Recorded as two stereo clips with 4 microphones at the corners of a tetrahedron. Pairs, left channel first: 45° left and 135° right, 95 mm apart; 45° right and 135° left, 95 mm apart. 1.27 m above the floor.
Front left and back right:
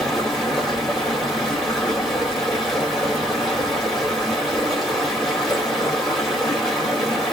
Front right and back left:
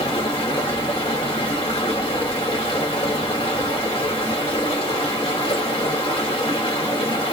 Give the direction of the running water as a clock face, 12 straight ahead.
1 o'clock.